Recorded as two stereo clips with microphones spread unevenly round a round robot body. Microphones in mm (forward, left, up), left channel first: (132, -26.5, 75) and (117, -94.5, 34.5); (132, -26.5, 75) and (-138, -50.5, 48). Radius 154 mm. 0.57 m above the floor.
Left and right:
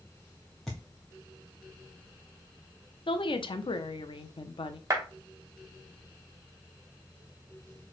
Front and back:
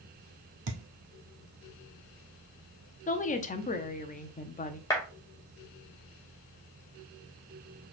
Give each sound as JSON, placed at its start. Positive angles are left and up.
{"t": 0.7, "sound": "a thud", "azimuth_deg": 150, "distance_m": 1.1}
{"t": 3.1, "sound": "a woman speaking", "azimuth_deg": 65, "distance_m": 0.8}
{"t": 4.9, "sound": "a clap", "azimuth_deg": -75, "distance_m": 2.0}